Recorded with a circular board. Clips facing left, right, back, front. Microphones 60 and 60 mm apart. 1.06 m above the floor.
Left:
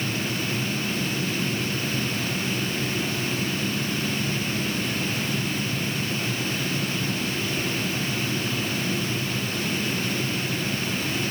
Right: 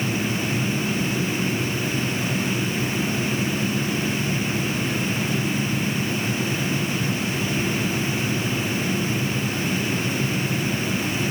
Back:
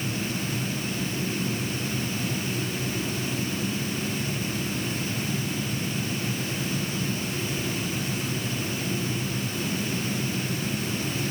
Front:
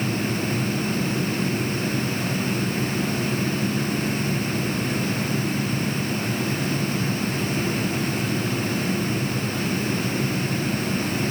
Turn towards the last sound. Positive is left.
No sound to turn to.